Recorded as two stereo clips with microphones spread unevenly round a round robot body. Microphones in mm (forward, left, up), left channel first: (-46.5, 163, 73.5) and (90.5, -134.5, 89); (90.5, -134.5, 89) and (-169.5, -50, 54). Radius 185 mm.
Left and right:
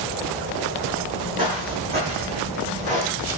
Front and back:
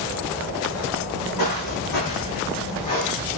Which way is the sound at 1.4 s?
10° left.